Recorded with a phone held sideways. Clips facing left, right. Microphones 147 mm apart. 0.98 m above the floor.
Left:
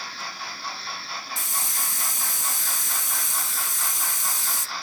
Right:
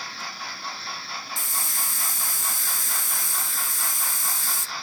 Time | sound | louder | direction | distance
1.4 | a hiss | left 1 dB | 20° left (ahead or behind) | 0.6 m